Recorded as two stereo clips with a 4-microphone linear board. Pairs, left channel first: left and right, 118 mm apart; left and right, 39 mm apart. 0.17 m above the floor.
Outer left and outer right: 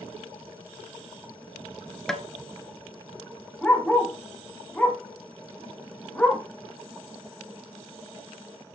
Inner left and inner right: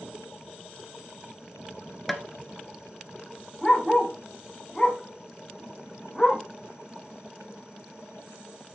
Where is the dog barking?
5° left (ahead or behind), 5 m.